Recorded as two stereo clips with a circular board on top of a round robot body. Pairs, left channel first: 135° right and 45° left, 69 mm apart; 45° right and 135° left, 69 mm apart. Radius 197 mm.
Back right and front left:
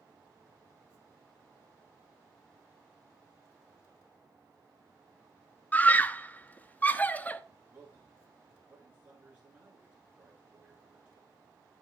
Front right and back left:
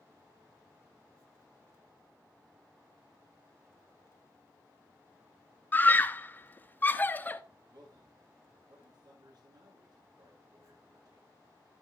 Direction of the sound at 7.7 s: 110° left.